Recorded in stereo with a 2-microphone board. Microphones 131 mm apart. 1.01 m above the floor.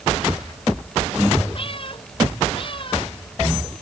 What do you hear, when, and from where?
1.6 s a cat meowing: 45° left (ahead or behind)